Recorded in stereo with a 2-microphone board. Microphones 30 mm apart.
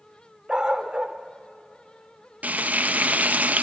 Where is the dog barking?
30° right (ahead or behind), 1.1 m.